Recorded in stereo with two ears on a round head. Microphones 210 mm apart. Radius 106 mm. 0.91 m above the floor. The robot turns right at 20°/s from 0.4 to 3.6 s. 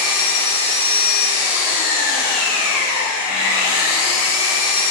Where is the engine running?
35° right, 1.8 m; by 4.9 s 25° left, 1.8 m.